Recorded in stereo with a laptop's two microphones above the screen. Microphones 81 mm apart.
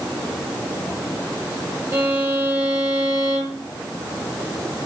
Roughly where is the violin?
Right.